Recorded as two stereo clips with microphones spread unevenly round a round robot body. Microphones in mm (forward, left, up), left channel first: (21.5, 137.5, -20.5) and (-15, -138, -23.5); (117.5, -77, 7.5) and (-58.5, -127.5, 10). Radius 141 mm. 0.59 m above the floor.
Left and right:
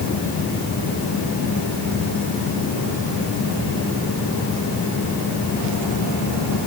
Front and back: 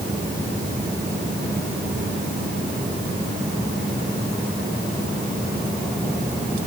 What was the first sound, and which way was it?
Only background noise.